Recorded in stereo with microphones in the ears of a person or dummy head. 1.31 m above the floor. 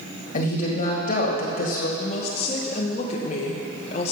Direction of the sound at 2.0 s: 40° left (ahead or behind).